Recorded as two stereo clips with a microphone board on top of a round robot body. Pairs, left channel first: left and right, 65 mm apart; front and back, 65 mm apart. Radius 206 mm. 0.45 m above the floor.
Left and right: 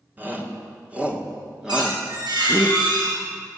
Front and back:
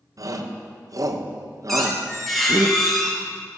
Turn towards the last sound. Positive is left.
turn(degrees=-85)